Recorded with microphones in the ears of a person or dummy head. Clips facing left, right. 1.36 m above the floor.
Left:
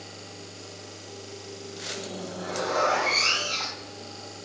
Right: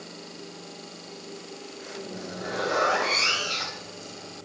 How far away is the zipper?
About 4.5 m.